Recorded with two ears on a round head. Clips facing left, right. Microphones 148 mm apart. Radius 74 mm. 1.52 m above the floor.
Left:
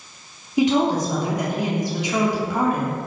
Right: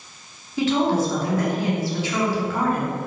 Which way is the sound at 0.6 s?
15° left (ahead or behind).